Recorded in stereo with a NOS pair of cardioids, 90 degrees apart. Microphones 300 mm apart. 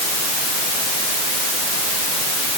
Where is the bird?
I don't hear a bird.